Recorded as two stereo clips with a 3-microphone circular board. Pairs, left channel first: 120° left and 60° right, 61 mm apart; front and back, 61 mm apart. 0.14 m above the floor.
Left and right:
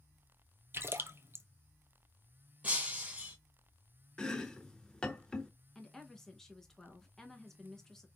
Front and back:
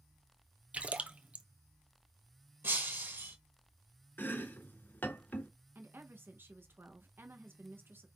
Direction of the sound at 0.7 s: 110° right.